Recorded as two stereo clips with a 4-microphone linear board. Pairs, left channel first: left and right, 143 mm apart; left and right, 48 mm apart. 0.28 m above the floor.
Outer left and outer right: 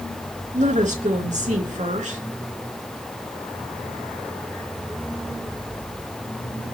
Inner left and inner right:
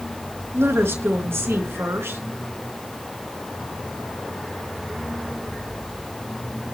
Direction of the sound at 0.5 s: 60° right (ahead or behind).